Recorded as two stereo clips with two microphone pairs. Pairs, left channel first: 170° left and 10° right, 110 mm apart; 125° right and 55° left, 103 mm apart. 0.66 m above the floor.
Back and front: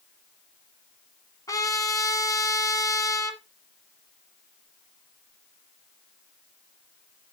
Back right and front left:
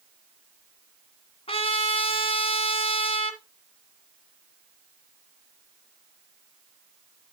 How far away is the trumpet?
About 1.5 m.